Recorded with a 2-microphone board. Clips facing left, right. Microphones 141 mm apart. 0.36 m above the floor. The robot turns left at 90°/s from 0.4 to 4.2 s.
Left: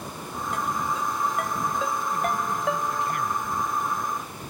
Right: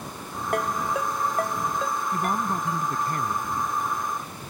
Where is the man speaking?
45° right; by 3.5 s 165° right.